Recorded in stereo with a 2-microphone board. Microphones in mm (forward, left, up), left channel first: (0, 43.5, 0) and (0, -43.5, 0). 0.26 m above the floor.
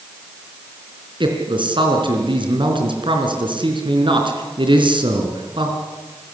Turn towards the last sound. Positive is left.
turn(degrees=-70)  # may be behind; listen again after turning